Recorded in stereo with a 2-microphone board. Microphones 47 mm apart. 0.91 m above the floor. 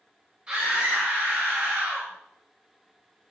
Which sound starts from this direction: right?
A scream, at 0.5 s.